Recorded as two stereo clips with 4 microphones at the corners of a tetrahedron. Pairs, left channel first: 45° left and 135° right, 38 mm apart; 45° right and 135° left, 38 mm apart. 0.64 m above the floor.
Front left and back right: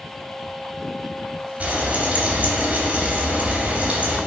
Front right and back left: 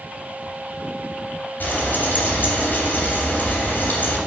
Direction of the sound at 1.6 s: 85° right.